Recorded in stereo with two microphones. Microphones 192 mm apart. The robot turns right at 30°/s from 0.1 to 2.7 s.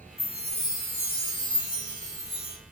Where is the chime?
75° left, 0.9 m; by 2.6 s 150° left, 0.9 m.